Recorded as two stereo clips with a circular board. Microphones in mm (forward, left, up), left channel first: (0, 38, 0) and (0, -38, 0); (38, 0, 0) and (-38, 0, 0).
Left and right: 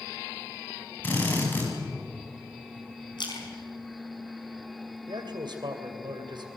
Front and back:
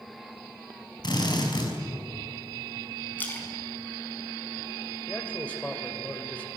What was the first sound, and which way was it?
A drill, 25° left.